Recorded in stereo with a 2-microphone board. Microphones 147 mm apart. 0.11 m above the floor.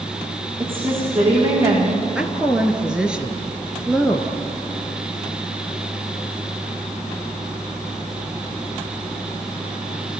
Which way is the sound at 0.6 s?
35° right (ahead or behind).